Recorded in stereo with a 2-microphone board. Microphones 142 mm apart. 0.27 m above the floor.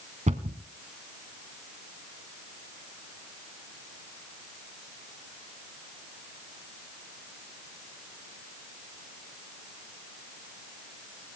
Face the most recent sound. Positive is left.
turn(degrees=-50)  # may be behind; listen again after turning